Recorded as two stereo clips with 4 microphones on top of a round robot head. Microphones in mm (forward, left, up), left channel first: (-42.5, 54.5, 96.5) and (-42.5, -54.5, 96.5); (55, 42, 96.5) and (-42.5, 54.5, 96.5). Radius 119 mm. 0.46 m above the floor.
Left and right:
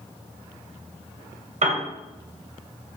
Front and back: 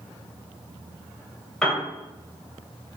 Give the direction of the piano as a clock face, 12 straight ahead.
3 o'clock.